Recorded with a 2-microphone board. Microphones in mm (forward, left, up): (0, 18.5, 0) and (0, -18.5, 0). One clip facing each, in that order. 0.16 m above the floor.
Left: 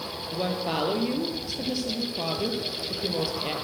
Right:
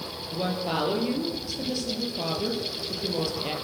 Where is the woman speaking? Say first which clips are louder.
Even; 5° left (ahead or behind), 4.5 m.